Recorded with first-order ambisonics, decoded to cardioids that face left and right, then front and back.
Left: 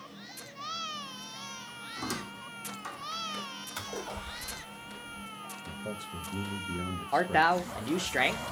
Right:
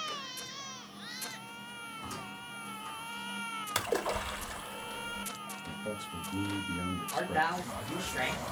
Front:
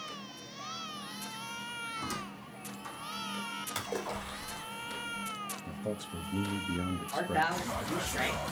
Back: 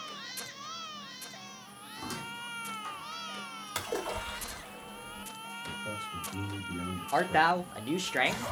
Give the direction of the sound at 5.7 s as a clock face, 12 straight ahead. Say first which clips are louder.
Right 1 dB, back 1 dB; 12 o'clock.